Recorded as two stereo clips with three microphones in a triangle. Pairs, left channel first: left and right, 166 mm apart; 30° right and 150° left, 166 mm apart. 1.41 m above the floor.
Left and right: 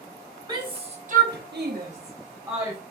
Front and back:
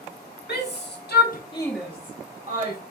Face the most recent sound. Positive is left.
turn(degrees=-160)